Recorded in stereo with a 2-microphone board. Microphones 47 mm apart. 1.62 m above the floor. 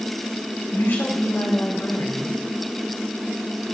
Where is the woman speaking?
65° left (ahead or behind), 3 m.